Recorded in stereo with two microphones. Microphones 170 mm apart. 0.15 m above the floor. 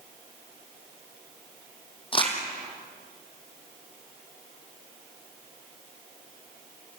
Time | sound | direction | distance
2.1 | crumpling | 30° left (ahead or behind) | 3.5 m